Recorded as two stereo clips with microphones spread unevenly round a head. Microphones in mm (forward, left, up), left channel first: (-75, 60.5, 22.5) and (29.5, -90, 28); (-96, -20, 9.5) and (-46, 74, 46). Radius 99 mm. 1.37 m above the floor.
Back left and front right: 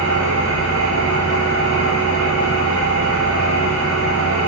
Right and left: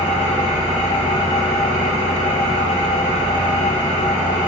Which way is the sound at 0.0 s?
65° right.